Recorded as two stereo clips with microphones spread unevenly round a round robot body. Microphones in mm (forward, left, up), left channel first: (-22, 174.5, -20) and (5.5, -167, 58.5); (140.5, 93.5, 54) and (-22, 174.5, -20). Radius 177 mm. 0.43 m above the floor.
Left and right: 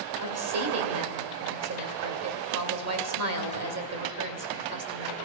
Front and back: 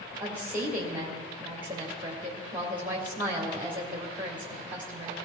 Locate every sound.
0.2 s a woman speaking: 135° right, 1.8 m